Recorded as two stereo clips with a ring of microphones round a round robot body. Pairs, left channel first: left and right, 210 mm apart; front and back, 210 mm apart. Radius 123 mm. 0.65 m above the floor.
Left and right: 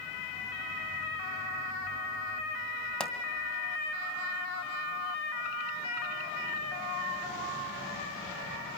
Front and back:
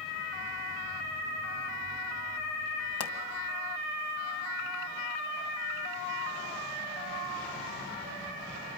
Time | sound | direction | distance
3.0 | a pop | 5° left | 2.5 m